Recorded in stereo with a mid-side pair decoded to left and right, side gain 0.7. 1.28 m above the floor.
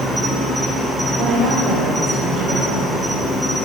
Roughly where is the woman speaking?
Ahead right.